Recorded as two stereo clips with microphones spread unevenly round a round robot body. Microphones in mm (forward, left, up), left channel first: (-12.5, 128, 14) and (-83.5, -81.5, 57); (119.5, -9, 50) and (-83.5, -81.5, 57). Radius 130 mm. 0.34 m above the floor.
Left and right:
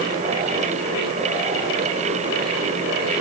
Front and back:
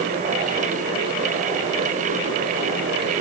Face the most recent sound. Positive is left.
No sound to turn to.